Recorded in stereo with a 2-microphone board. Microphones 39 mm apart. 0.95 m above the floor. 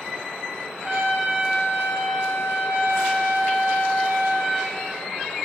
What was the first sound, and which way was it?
A trumpet, 45° right (ahead or behind).